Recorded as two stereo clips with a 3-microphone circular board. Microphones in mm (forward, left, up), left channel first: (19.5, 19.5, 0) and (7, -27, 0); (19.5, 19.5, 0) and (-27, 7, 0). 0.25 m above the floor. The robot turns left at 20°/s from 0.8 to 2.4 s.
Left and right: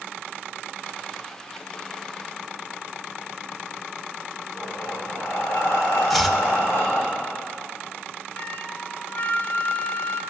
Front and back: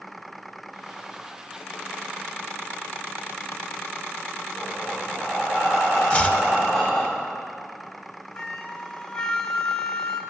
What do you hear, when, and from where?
4.5 s breathing: 105° left, 6 m
6.1 s chopping: 15° right, 0.8 m
8.3 s a flute: 75° left, 1.1 m